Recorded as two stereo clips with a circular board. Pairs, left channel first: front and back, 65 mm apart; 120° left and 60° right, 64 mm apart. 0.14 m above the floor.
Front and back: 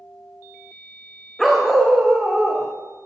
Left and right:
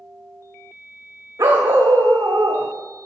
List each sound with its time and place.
1.4 s a dog barking: 90° right, 3 m; by 2.7 s 105° right, 3 m